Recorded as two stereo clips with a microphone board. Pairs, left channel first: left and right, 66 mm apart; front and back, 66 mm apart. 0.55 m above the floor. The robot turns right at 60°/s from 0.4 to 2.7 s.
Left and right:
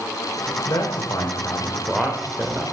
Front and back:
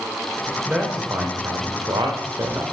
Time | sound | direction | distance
0.7 | a man speaking | 105° left | 1.9 m